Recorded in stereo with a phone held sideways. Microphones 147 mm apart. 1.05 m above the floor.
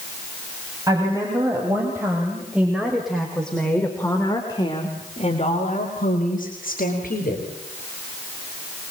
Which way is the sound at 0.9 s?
20° right (ahead or behind).